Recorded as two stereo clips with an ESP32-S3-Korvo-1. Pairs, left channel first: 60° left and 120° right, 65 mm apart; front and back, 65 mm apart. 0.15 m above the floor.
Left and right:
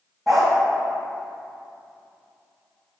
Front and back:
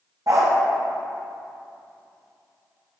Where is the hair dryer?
No hair dryer in this recording.